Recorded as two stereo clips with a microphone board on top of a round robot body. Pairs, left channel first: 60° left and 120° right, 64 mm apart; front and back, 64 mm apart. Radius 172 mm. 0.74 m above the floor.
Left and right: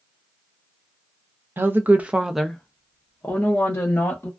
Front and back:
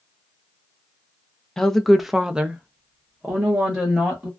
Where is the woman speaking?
80° right, 0.7 m; by 4.3 s 115° left, 1.2 m.